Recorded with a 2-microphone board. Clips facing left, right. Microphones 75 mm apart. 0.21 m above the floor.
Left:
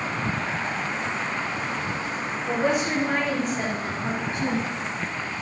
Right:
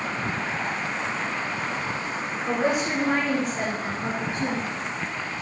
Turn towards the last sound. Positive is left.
turn(degrees=-10)  # may be behind; listen again after turning